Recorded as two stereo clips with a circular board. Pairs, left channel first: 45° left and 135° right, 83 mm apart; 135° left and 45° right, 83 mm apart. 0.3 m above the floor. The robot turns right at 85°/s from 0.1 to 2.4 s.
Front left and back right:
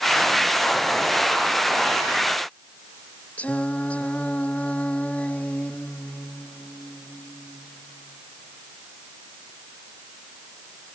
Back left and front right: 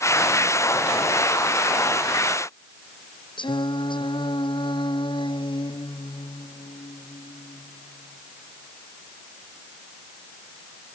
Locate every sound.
3.4 s singing: 120° left